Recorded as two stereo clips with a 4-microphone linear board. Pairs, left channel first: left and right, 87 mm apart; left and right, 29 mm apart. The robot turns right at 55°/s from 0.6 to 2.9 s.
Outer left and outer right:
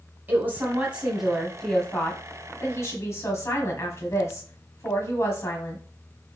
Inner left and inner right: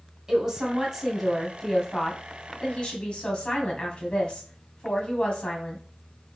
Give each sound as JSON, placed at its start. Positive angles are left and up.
{"t": 0.3, "sound": "a woman speaking", "azimuth_deg": -40, "distance_m": 1.4}